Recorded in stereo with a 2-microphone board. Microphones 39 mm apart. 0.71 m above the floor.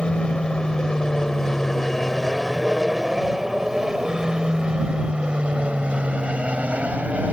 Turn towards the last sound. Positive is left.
turn(degrees=-40)  # may be behind; listen again after turning